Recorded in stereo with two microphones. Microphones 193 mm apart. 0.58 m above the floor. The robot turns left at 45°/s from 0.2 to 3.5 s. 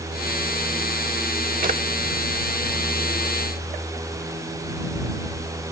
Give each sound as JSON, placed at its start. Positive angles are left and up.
{"t": 1.6, "sound": "a drawer", "side_deg": -45}